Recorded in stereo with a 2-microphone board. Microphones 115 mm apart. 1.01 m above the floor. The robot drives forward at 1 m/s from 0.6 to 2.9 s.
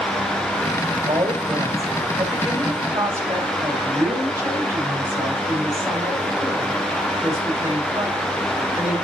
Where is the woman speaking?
40° right (ahead or behind), 3 m; by 8.9 s 25° right (ahead or behind), 5 m.